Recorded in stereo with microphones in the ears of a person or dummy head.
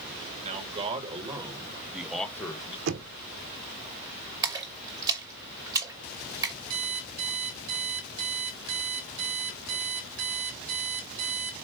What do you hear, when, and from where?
0.4 s a man speaking: 40° right (ahead or behind), 3 m; by 2.8 s 30° left (ahead or behind), 1.2 m
2.9 s knocking: 65° right (ahead or behind), 0.9 m
4.4 s a splash: 25° right (ahead or behind), 2 m
6.7 s an alarm clock: 85° right, 2.5 m